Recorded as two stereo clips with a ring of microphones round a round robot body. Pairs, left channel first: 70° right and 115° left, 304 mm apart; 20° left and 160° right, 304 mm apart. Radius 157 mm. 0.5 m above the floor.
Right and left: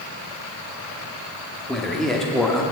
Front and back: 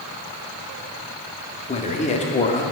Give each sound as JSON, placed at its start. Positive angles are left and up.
{"t": 1.7, "sound": "a man speaking", "azimuth_deg": 20, "distance_m": 0.9}